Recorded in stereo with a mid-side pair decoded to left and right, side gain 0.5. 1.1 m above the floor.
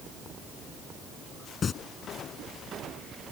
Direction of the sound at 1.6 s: 40° left.